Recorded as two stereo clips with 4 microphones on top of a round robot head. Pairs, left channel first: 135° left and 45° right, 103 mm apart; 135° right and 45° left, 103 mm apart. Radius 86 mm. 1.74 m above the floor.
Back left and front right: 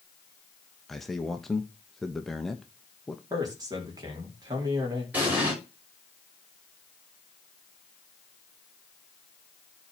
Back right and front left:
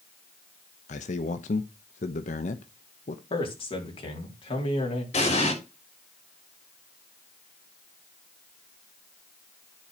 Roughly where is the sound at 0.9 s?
Behind right.